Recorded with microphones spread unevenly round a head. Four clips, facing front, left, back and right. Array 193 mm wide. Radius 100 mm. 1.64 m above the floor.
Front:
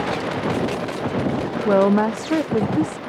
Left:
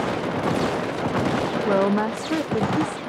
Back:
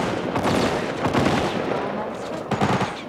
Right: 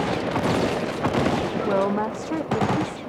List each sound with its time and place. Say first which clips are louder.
1.6 s a woman speaking: left 3 dB, front 9 dB; 15° left